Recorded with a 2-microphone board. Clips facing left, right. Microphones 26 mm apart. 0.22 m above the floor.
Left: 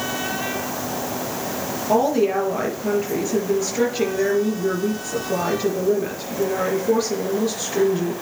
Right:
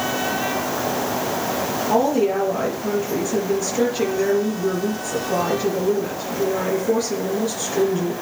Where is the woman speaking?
15° left (ahead or behind), 4.5 m.